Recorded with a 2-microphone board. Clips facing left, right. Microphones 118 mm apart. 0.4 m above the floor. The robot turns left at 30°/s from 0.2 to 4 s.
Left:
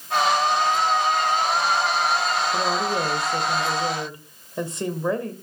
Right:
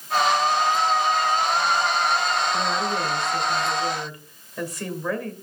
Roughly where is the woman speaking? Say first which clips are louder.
Left 1 dB; left.